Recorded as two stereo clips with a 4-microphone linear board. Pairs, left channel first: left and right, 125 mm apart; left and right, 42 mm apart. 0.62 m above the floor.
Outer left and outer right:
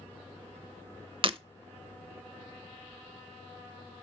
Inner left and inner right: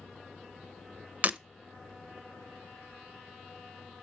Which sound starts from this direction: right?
Breaking glass, at 1.2 s.